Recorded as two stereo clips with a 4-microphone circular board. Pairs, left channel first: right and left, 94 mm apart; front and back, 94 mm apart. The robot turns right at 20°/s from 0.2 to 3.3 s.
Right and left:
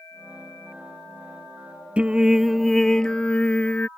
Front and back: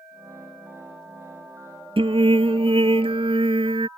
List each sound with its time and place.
2.0 s singing: 165° left; by 3.9 s 165° right